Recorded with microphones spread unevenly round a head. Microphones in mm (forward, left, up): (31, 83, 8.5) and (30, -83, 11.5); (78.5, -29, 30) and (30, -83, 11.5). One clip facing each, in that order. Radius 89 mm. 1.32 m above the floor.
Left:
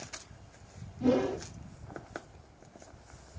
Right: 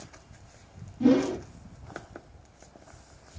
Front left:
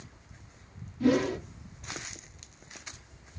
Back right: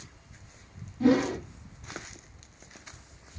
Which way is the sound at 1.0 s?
70° right.